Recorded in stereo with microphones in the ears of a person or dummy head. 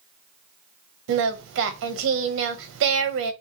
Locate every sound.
1.1 s singing: 65° right (ahead or behind), 0.6 m